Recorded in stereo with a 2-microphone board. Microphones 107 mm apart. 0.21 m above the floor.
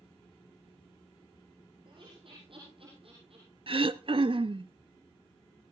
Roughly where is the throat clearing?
Right.